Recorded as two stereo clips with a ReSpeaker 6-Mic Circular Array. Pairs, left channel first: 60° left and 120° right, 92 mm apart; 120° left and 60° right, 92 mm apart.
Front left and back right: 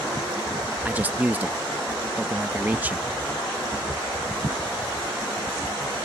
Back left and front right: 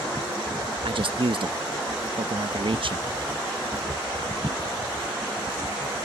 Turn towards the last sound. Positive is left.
turn(degrees=-50)